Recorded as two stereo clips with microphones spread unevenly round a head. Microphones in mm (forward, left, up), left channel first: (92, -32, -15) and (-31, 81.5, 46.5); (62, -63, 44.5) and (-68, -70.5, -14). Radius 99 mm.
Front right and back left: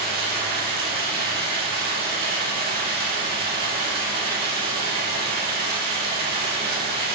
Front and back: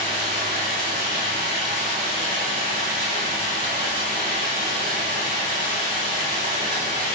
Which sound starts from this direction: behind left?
Running water, at 0.0 s.